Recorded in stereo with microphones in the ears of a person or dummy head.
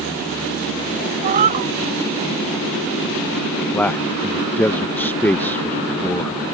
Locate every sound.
1.2 s a cat meowing: 45° right (ahead or behind)
3.7 s a man speaking: 15° left (ahead or behind)